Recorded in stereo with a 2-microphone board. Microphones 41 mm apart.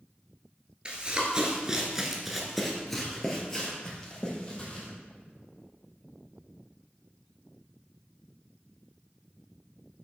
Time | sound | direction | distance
0.8 | running footsteps | 25° right (ahead or behind) | 1.6 m